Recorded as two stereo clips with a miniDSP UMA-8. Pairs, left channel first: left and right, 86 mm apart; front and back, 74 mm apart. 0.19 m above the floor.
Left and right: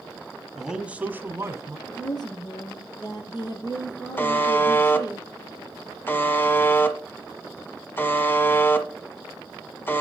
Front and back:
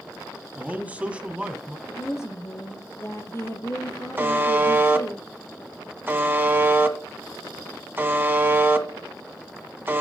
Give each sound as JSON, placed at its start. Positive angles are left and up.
{"t": 0.6, "sound": "a man speaking", "azimuth_deg": -170, "distance_m": 1.0}
{"t": 1.9, "sound": "a woman speaking", "azimuth_deg": 55, "distance_m": 4.0}
{"t": 4.2, "sound": "a buzzer", "azimuth_deg": 135, "distance_m": 1.4}